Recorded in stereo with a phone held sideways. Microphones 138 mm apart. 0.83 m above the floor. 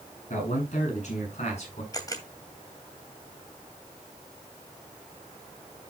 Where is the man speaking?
60° left (ahead or behind), 7.5 m; by 1.8 s 50° left (ahead or behind), 7.5 m.